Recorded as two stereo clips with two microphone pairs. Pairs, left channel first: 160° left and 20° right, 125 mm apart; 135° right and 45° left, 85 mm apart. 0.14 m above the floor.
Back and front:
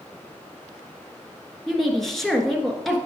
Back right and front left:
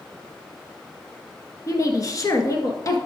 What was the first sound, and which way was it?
A woman speaking, 115° right.